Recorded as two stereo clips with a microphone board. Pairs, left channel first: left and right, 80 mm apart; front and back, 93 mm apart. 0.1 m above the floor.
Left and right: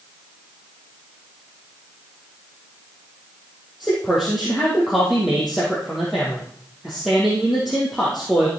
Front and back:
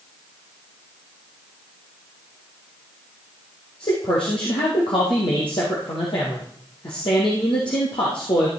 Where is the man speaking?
Straight ahead, 3.5 m.